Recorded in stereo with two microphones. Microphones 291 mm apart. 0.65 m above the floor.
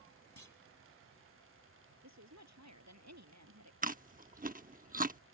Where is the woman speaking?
65° right (ahead or behind).